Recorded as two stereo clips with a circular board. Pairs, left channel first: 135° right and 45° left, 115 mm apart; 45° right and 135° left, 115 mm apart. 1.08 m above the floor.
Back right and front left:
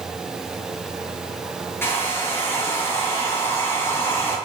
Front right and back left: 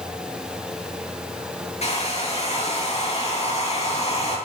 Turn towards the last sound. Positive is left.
turn(degrees=-65)